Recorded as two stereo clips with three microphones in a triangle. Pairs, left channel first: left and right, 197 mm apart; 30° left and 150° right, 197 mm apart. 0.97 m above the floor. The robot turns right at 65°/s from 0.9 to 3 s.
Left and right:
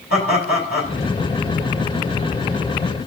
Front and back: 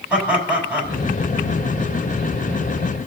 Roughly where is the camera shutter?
I don't hear a camera shutter.